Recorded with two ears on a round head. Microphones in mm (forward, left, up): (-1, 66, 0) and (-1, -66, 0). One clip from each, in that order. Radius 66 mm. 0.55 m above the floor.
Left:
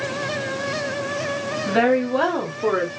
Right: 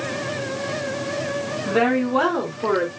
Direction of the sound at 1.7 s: 45° left (ahead or behind).